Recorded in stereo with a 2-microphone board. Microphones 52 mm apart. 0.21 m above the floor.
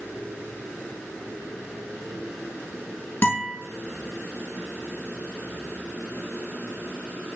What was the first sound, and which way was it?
A guitar, 40° left (ahead or behind).